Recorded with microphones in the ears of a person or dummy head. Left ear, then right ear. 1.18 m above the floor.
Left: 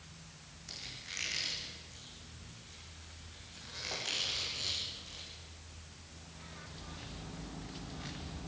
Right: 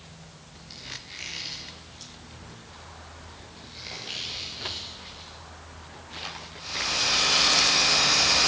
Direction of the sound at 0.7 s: 85° left.